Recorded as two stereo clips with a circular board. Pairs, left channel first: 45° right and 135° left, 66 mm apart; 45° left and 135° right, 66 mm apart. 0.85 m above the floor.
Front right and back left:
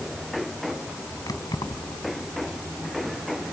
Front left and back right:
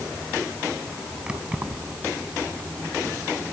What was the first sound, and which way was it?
Keys jangling, 60° right.